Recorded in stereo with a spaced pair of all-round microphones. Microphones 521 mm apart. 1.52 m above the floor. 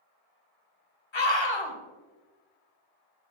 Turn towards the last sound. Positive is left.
turn(degrees=65)  # may be behind; listen again after turning